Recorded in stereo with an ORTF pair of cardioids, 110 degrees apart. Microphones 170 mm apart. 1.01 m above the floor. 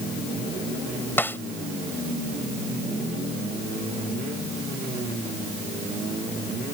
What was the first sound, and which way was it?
A snare drum, 10° left.